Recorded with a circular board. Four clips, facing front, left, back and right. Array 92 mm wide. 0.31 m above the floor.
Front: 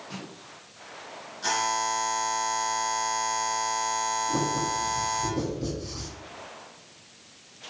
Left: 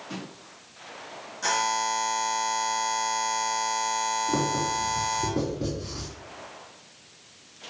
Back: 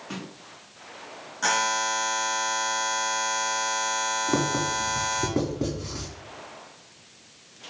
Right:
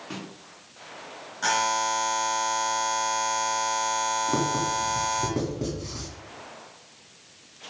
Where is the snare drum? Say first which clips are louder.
Even, back 4 dB; 140° right, 4 m.